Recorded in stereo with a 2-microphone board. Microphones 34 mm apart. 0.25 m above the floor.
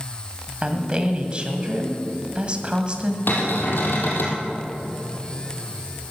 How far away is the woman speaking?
About 1.8 m.